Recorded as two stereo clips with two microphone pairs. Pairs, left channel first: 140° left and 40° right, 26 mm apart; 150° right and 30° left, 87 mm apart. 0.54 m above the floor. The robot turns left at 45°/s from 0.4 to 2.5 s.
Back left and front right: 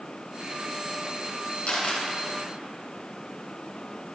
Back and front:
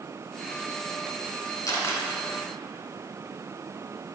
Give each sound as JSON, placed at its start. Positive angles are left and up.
{"t": 1.7, "sound": "a camera shutter", "azimuth_deg": 165, "distance_m": 2.5}